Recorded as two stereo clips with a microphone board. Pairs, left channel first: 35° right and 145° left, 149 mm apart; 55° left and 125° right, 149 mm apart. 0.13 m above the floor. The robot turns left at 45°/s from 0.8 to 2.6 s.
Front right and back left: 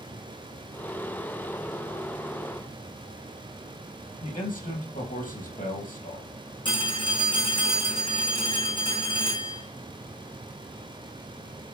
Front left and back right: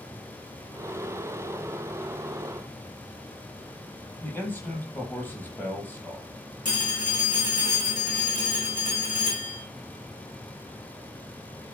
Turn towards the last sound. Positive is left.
turn(degrees=20)